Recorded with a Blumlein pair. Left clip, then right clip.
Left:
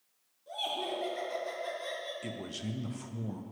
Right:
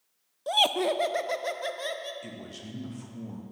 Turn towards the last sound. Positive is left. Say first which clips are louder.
# left 2 dB
turn(degrees=15)